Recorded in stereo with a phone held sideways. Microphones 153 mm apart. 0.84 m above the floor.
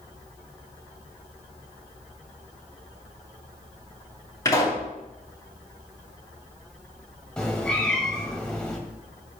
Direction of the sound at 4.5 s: 25° left (ahead or behind).